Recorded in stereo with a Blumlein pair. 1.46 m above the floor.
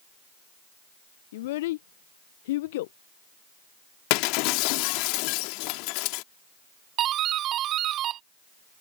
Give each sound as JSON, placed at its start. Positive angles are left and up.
{"t": 1.3, "sound": "a child speaking", "azimuth_deg": 55}
{"t": 4.1, "sound": "breaking glass", "azimuth_deg": 45}
{"t": 7.0, "sound": "a doorbell", "azimuth_deg": -30}